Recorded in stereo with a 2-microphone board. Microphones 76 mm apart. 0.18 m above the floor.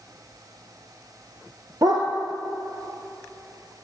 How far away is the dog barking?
About 1.6 m.